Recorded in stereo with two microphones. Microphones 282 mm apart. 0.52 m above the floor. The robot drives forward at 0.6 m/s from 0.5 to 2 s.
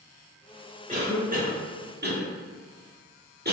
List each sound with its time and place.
0.9 s a cough: 25° right (ahead or behind), 1.6 m; by 3.5 s 35° right (ahead or behind), 1.2 m